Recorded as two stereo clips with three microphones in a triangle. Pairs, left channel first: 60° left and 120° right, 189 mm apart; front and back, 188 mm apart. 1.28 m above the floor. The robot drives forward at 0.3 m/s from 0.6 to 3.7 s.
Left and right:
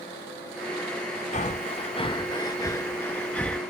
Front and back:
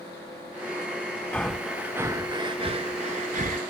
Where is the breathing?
80° left; by 3.6 s 145° left.